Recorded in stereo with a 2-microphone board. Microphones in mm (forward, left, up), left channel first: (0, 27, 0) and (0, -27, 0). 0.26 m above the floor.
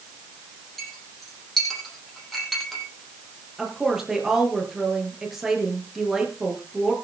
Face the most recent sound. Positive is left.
turn(degrees=-5)  # may be behind; listen again after turning